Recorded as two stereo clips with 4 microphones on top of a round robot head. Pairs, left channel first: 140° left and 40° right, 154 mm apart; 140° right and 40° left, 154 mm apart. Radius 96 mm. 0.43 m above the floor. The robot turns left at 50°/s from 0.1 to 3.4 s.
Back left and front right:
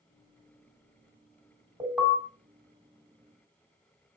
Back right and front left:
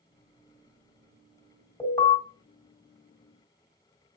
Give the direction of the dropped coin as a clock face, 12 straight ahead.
I don't hear a dropped coin.